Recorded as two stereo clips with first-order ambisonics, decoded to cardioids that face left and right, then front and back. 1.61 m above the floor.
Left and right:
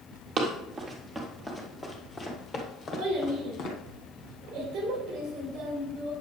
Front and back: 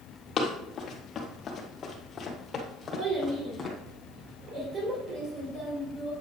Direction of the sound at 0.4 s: 50° right.